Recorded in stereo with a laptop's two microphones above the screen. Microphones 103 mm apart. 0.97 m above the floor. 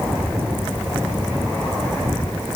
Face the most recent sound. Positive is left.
No sound to turn to.